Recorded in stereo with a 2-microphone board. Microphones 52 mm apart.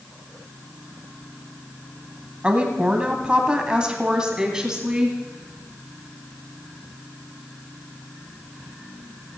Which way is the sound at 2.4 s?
20° right (ahead or behind).